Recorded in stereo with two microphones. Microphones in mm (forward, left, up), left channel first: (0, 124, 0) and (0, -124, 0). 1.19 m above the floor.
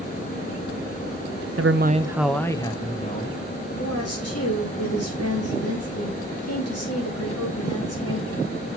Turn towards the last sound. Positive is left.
turn(degrees=75)  # may be behind; listen again after turning